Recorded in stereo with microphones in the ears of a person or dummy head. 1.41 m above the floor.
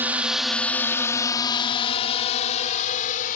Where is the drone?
10° right (ahead or behind); by 3.4 s 45° left (ahead or behind).